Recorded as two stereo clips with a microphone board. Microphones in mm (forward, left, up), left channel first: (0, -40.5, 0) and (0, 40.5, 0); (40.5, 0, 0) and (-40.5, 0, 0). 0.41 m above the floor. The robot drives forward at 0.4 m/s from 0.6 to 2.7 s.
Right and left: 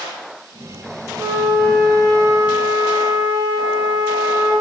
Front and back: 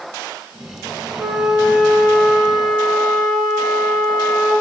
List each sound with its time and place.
1.2 s a flute: 90° left, 0.6 m; by 4.5 s 135° left, 0.9 m